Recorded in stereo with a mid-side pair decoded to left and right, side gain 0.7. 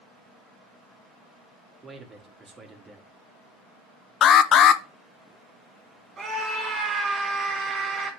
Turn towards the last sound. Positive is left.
turn(degrees=-30)